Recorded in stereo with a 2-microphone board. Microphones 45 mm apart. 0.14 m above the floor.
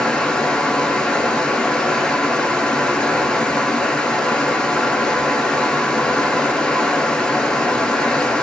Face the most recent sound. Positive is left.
turn(degrees=20)  # may be behind; listen again after turning